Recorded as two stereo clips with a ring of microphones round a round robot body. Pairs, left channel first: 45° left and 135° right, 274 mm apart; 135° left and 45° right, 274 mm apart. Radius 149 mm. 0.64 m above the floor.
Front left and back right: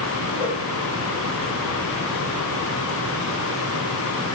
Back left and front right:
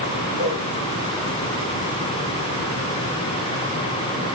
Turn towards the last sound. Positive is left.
turn(degrees=140)